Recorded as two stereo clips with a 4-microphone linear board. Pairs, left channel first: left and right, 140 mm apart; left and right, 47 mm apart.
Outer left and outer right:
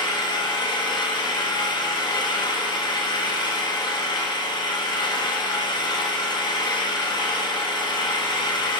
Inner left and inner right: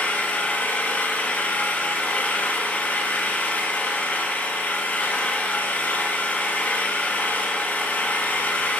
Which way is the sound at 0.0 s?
30° left (ahead or behind).